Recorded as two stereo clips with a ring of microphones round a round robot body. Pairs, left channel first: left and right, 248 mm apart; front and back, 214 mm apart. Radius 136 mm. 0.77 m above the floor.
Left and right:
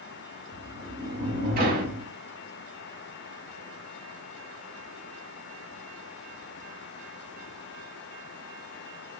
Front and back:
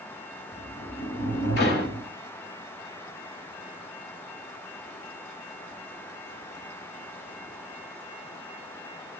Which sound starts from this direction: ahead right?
A sliding door, at 0.5 s.